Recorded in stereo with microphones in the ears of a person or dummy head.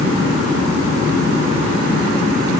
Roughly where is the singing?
No singing in this recording.